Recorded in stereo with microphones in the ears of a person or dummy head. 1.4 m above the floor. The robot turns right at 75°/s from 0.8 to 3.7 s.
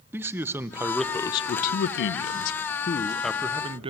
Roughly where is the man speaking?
Ahead.